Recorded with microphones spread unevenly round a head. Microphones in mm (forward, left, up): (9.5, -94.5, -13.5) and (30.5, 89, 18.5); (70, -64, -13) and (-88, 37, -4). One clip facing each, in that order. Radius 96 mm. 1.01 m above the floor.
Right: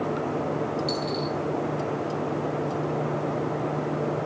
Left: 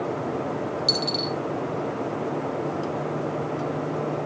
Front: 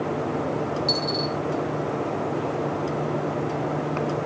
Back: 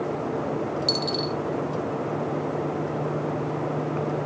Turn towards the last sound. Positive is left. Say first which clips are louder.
# even, front 1 dB
turn(degrees=105)